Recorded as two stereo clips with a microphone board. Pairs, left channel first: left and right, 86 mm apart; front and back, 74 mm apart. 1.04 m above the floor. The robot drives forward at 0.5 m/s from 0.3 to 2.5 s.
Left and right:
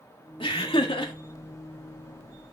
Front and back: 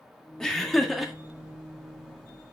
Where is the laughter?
80° left, 1.7 m; by 1.1 s 95° left, 1.7 m.